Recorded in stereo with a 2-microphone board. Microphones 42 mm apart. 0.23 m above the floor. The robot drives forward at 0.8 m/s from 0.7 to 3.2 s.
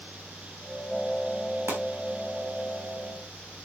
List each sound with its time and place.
1.7 s a pop: 70° right (ahead or behind), 3.5 m; by 1.8 s 65° right (ahead or behind), 3.5 m